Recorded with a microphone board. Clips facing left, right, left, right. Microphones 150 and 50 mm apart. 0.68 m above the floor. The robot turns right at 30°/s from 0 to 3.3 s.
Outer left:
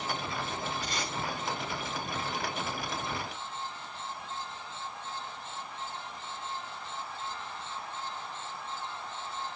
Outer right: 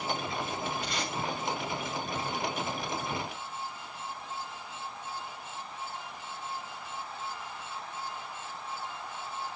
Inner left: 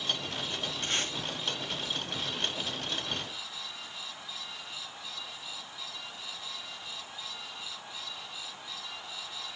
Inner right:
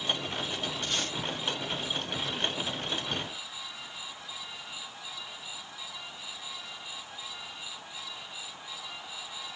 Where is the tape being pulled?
35° left (ahead or behind), 7 m; by 1.1 s 25° left (ahead or behind), 7 m.